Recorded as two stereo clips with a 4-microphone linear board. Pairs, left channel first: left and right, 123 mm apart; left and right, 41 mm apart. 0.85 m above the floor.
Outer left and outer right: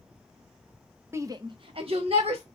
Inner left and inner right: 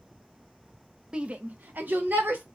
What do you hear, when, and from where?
1.1 s a shout: 20° right (ahead or behind), 0.7 m; by 2.4 s 50° right (ahead or behind), 1.4 m